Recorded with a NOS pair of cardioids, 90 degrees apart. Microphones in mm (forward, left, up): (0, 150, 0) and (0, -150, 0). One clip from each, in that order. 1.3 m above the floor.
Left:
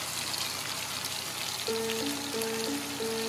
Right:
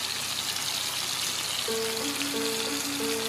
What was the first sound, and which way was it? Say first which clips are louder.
A piano: right 2 dB; straight ahead.